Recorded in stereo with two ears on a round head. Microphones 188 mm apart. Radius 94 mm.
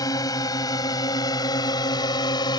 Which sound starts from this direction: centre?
A drone, at 0.0 s.